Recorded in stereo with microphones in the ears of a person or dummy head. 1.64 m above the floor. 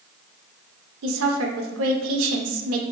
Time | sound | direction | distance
1.0 | a woman speaking | 85° right | 0.8 m